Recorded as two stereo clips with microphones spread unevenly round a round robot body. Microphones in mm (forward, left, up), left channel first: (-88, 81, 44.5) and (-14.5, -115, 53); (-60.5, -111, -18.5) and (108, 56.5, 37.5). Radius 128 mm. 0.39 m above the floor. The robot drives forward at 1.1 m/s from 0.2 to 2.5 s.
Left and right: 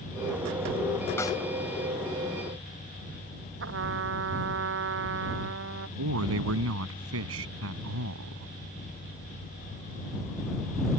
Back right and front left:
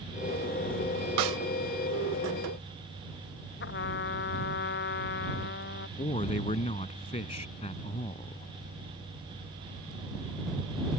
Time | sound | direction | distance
1.2 | a snare drum | 30° left | ?
3.6 | a trumpet | 95° right | ?
6.0 | a man speaking | 70° right | ?